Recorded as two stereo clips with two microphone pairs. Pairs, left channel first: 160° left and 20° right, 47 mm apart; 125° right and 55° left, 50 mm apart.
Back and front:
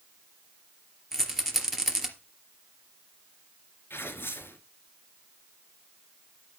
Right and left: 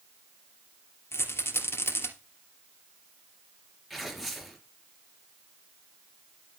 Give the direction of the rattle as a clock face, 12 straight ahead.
4 o'clock.